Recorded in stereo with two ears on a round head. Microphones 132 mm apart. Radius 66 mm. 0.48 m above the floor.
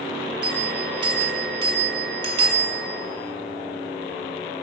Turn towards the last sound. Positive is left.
turn(degrees=-35)  # may be behind; listen again after turning